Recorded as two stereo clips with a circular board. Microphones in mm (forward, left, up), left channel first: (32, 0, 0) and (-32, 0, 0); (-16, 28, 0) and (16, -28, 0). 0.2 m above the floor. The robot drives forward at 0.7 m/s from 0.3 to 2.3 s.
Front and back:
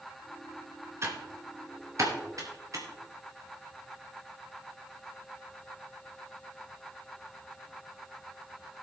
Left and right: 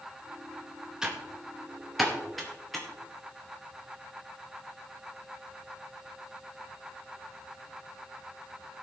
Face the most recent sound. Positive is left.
turn(degrees=-150)